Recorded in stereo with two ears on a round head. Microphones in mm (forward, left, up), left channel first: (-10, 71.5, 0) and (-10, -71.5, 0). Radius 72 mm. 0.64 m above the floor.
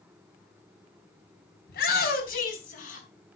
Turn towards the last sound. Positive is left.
turn(degrees=55)  # may be behind; listen again after turning